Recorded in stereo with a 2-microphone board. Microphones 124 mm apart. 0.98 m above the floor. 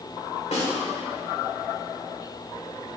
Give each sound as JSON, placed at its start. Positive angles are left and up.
{"t": 0.5, "sound": "a snare drum", "side_deg": 60, "distance_m": 3.5}